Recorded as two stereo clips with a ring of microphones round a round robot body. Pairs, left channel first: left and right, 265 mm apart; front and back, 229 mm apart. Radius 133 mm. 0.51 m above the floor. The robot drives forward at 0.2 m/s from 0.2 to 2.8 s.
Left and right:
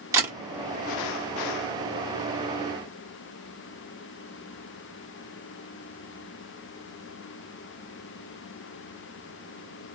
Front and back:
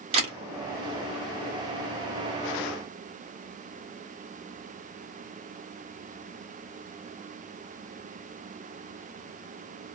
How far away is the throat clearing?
No throat clearing in this recording.